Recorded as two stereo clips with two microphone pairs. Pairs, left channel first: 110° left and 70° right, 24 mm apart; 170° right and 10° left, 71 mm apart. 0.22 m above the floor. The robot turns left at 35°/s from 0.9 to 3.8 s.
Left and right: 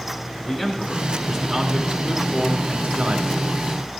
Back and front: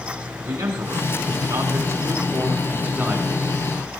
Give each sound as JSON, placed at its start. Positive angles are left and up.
{"t": 0.4, "sound": "a man speaking", "azimuth_deg": 20, "distance_m": 3.0}